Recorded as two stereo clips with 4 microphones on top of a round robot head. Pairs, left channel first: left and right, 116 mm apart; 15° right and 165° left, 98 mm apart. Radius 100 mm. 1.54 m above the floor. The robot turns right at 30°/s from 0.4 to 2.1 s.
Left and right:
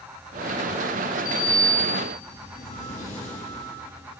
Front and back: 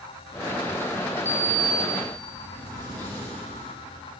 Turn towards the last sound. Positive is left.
turn(degrees=115)